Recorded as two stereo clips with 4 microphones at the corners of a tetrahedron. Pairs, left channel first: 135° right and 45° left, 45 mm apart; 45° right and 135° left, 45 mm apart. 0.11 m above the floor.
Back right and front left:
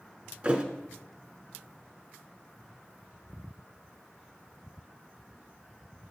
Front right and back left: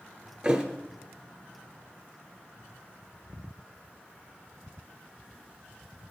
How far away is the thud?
About 0.7 m.